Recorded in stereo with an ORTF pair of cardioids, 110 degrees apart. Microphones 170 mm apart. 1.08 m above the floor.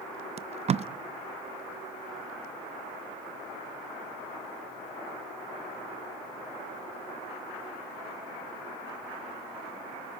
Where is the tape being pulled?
40° right, 0.7 m.